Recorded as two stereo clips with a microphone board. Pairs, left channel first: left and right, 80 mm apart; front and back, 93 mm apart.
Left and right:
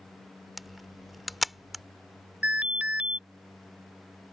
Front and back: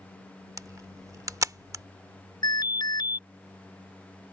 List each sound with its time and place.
0.6 s a camera shutter: straight behind
2.4 s an alarm: 20° right